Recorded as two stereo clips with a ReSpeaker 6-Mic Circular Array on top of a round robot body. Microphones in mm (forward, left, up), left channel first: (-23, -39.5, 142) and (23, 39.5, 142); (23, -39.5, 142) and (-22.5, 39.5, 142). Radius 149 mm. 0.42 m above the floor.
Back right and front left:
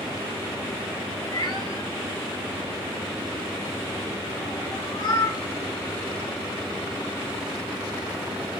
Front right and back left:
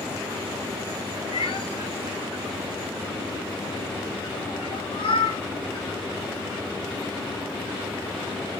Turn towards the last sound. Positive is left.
turn(degrees=-80)